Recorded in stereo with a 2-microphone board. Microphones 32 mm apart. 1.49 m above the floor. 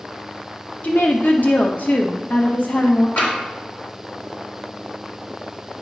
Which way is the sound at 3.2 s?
85° left.